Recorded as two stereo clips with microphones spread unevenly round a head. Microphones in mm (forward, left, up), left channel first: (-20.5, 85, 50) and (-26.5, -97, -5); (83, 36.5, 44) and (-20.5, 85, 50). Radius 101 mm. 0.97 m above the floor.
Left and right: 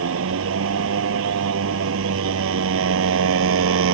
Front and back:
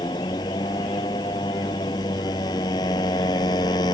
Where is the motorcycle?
95° right.